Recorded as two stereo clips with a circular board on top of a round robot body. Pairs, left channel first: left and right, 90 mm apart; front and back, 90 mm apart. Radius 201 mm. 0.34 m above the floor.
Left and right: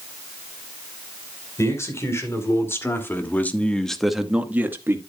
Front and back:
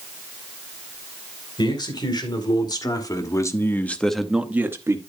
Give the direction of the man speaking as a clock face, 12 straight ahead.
11 o'clock.